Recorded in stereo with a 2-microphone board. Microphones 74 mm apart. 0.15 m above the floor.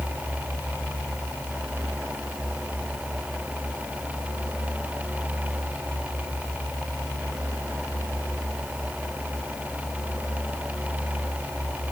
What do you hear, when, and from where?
Only background noise.